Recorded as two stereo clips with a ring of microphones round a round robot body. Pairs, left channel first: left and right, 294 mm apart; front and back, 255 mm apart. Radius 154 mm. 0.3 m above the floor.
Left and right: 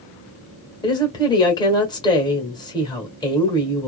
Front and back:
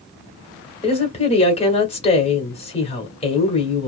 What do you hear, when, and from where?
0.8 s a woman speaking: 30° left, 1.4 m